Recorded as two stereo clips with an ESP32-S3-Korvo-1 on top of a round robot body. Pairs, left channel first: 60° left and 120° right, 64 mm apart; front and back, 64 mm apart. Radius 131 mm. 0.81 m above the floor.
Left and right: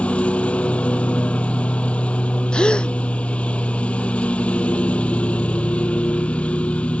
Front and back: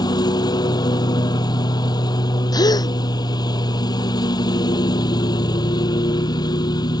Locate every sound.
0.0 s a lawn mower: 15° right
2.5 s a gasp: 15° right